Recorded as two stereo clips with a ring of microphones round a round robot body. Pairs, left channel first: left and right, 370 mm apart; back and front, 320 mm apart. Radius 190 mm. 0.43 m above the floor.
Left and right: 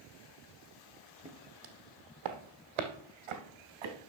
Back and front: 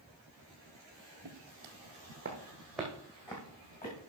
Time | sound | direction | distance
1.2 | footsteps | 15° right | 1.4 m